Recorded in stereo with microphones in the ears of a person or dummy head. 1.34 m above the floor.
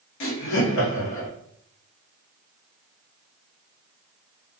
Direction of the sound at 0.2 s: 65° left (ahead or behind).